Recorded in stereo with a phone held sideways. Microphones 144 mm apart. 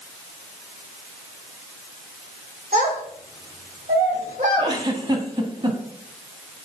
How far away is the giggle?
About 1.6 m.